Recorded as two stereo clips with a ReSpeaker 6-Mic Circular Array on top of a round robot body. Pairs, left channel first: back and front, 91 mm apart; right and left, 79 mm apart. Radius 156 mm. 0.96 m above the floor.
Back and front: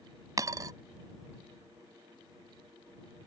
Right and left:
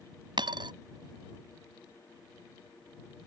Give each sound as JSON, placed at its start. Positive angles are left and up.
{"t": 0.4, "sound": "a dropped coin", "azimuth_deg": 55}